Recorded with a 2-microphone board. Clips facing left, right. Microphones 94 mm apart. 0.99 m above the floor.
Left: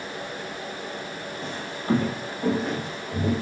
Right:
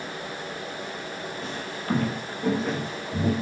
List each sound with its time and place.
1.4 s footsteps: 35° left (ahead or behind), 1.2 m; by 3.3 s 5° right (ahead or behind), 2.5 m